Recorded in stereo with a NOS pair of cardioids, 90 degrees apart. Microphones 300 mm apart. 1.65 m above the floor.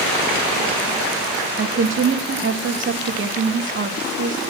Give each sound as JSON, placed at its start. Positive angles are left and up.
{"t": 1.6, "sound": "a woman speaking", "azimuth_deg": -40, "distance_m": 2.5}